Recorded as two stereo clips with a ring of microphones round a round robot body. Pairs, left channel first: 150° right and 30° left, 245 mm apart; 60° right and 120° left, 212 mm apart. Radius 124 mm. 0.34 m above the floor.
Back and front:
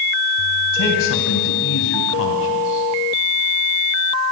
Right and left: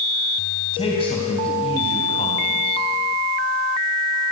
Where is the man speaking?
125° right, 3 m.